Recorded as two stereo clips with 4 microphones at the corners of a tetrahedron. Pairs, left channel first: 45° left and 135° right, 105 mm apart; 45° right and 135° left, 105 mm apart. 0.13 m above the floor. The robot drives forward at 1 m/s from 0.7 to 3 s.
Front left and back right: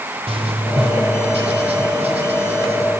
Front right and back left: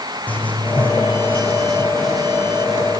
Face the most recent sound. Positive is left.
turn(degrees=-140)